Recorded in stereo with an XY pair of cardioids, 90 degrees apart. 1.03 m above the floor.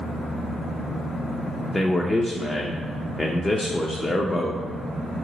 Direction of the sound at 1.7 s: 25° left.